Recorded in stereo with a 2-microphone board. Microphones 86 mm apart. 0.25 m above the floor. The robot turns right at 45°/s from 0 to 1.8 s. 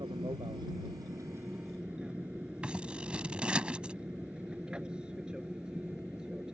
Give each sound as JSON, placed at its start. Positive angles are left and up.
{"t": 0.0, "sound": "an aircraft", "side_deg": -65}
{"t": 2.6, "sound": "scissors", "side_deg": -10}